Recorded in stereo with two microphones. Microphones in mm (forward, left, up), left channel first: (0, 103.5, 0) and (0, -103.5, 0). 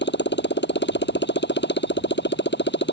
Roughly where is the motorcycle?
Left.